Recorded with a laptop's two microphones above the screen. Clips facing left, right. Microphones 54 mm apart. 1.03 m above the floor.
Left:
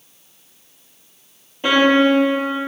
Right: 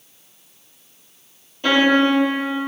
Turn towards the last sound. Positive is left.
turn(degrees=20)  # may be behind; listen again after turning